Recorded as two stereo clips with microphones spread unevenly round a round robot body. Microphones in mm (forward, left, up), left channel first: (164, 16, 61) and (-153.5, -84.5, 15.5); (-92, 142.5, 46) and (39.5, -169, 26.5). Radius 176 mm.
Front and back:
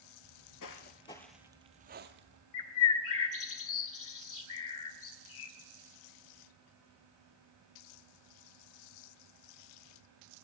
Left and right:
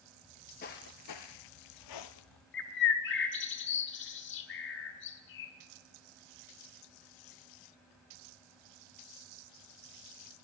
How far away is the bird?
About 1.8 m.